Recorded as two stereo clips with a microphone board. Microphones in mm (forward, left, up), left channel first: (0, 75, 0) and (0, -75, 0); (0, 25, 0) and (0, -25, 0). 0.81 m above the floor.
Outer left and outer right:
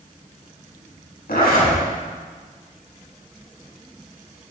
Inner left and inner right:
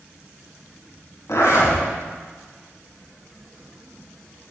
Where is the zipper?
85° left, 4.5 m.